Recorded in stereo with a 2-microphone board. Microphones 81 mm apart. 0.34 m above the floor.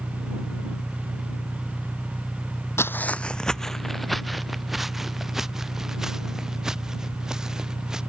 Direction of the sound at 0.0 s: 20° left (ahead or behind).